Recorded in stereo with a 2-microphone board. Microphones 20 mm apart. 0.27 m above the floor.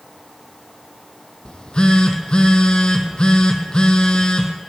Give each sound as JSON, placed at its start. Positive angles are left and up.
{"t": 1.4, "sound": "a phone buzzing", "side_deg": 45, "distance_m": 1.5}